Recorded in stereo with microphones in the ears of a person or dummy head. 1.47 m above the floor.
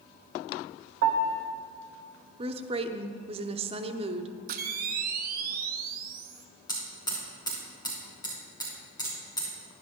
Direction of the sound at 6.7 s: 15° left (ahead or behind).